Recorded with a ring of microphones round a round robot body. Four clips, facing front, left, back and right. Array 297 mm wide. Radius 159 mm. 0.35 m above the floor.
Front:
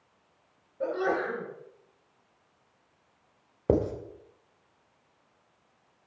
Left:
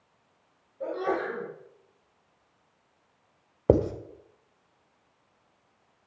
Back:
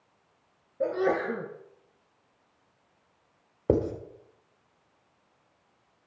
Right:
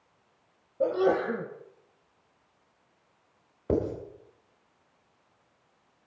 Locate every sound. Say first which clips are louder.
0.8 s a sneeze: right 5 dB, back 2 dB; 120° right, 2.5 m
3.7 s writing: left 5 dB, even; 85° left, 1.9 m